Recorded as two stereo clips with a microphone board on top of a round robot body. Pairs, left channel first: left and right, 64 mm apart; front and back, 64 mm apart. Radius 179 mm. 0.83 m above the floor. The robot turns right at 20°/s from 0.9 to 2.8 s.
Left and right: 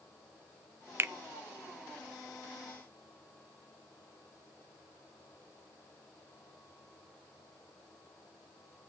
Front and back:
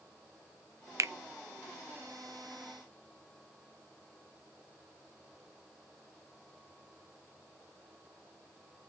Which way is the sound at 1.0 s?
145° right.